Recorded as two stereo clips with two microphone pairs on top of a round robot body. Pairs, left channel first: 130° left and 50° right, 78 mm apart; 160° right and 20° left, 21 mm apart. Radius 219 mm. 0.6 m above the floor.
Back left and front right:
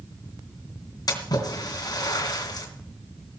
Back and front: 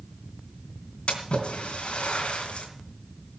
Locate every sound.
1.1 s a splash: 170° left, 3 m